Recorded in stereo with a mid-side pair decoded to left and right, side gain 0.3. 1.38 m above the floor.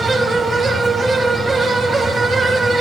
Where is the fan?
70° right, 2.5 m.